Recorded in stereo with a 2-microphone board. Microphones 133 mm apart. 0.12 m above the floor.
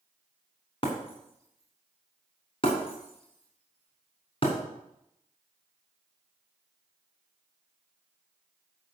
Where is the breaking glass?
40° left (ahead or behind), 4 m.